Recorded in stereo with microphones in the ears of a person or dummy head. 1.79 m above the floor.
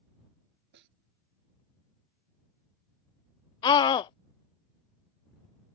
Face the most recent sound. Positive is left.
turn(degrees=30)  # may be behind; listen again after turning